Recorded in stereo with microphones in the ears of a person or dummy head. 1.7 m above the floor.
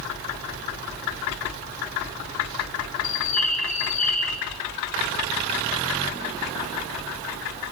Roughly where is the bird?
Left.